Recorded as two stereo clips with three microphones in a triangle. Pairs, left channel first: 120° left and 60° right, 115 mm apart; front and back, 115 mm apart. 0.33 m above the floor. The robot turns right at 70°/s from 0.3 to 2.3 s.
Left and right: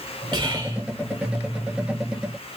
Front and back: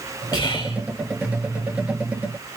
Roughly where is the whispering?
Ahead right.